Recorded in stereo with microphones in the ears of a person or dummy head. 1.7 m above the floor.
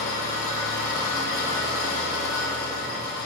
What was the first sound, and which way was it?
An engine running, 65° left (ahead or behind).